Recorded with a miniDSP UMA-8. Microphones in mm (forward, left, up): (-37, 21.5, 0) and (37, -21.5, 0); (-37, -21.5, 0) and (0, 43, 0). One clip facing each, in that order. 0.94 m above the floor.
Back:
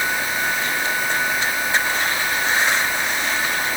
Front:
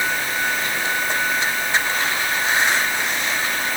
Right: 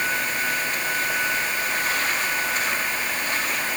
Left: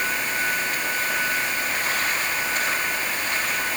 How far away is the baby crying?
I don't hear a baby crying.